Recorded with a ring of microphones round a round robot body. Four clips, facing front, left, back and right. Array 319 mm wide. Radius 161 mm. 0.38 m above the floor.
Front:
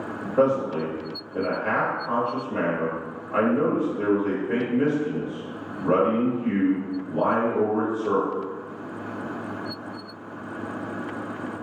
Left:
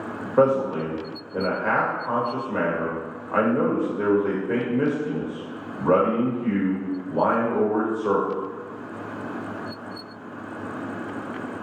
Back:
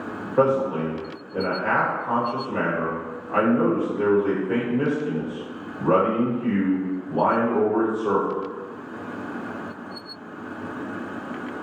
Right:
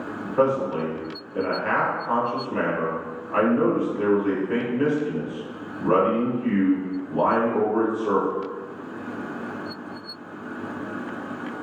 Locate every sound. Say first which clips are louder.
0.4 s a man speaking: left 2 dB, back 1 dB; 105° left, 1.4 m